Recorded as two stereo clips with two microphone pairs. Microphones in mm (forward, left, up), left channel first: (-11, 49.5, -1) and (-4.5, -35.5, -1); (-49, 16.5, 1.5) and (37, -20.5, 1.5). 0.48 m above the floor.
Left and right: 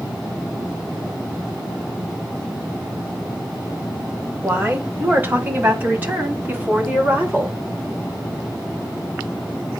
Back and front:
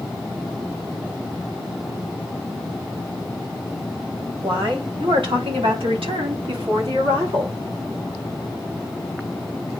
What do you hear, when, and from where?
4.4 s a woman speaking: 25° right, 2.5 m; by 7.6 s 15° right, 5.5 m